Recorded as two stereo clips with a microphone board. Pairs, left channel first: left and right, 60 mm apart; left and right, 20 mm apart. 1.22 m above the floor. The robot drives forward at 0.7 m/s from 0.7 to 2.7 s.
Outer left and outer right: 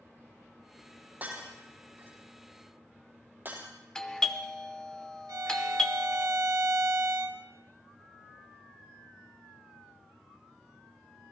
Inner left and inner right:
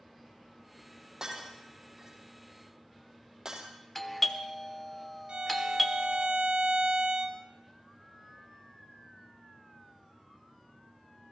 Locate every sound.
1.2 s breaking glass: 25° right (ahead or behind), 5 m; by 3.7 s 35° right (ahead or behind), 4.5 m
4.0 s a doorbell: 15° left (ahead or behind), 1.1 m
5.3 s a violin: 70° right (ahead or behind), 1.7 m